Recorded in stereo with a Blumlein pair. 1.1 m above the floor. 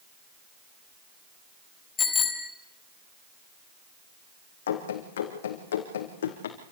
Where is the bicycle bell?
20° left, 4 m.